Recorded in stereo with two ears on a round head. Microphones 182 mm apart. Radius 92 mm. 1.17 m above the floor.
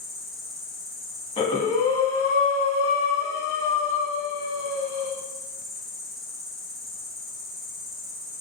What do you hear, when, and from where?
0.0 s an insect: centre (ahead or behind), 1.8 m
1.4 s breathing: 30° left (ahead or behind), 2.0 m